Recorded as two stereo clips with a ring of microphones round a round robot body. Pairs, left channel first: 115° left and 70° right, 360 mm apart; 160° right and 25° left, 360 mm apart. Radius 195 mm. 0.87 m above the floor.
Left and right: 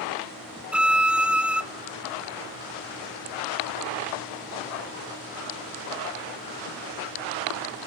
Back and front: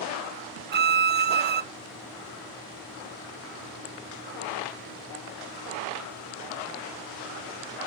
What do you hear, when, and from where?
0.7 s a violin: 15° left, 0.6 m